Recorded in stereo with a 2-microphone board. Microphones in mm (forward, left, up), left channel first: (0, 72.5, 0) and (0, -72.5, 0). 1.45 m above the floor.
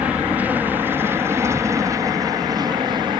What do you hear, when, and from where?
0.0 s an aircraft: 10° right (ahead or behind); by 3.2 s 35° right (ahead or behind)